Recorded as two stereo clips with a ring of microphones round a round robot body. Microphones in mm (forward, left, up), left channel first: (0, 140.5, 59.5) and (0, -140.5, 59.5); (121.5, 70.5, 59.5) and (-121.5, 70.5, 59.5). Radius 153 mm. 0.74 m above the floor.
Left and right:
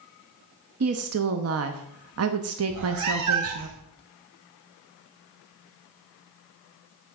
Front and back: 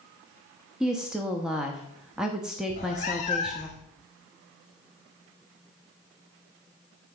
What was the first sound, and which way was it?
A woman speaking, 95° right.